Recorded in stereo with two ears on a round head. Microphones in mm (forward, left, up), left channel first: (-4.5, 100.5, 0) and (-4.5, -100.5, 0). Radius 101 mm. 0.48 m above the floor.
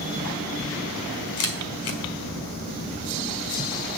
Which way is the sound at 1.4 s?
65° left (ahead or behind).